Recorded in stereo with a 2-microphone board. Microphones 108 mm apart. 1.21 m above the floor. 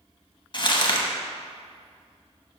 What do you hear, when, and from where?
0.5 s crumpling: 40° left (ahead or behind), 0.8 m